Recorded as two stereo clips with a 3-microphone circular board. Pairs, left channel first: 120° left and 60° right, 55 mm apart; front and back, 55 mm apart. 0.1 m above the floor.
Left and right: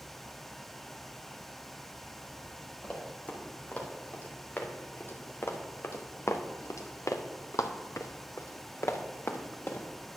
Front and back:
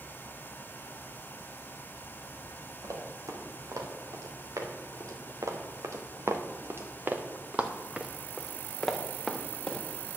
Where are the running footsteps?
175° right, 3 m; by 9.9 s 75° left, 2 m.